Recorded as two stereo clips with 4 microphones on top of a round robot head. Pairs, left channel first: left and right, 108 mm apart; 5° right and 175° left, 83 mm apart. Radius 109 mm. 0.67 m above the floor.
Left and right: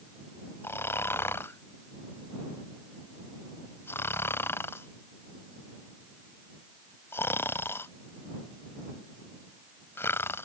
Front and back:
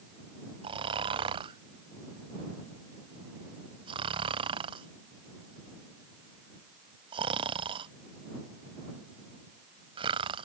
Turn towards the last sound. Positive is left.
turn(degrees=160)